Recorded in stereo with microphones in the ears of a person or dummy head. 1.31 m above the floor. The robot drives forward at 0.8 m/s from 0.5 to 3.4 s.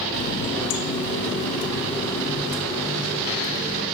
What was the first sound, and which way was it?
A running tap, 60° left (ahead or behind).